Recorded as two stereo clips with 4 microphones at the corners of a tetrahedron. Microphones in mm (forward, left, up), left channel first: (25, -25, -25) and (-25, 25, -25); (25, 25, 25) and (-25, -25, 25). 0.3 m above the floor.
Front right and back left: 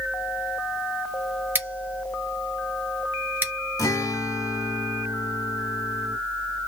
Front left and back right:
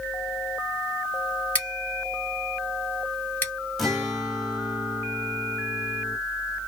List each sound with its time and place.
1.6 s scissors: 95° left, 1.6 m
3.8 s a guitar: 45° right, 1.0 m